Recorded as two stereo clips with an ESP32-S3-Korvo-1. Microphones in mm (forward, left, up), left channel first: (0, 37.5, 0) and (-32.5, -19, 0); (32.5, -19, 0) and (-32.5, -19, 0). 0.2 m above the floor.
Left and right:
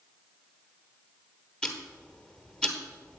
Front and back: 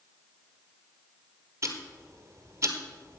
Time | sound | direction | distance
1.6 | ticking | 135° left | 1.3 m